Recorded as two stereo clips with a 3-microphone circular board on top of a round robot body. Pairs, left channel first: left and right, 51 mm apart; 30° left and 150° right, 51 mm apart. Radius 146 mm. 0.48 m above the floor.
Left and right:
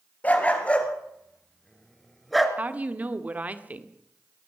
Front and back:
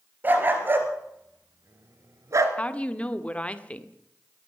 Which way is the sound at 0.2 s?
155° left.